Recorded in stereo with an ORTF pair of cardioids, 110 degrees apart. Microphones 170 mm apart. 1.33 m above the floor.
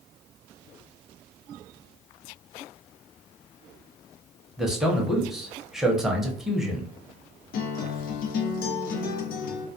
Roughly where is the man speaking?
Ahead.